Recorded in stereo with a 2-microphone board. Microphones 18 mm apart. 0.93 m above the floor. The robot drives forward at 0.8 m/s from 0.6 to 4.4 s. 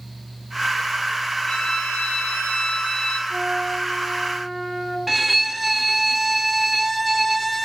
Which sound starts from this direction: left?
A violin, at 1.5 s.